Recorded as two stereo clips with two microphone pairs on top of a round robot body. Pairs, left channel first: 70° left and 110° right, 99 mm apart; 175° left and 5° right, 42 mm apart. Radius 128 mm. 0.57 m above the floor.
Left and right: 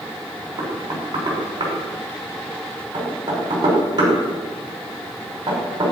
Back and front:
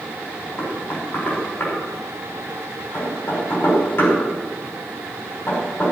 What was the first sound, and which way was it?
Knocking, 155° right.